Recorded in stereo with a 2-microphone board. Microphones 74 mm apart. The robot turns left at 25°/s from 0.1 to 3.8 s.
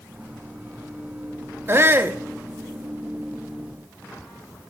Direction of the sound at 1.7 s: 35° right (ahead or behind).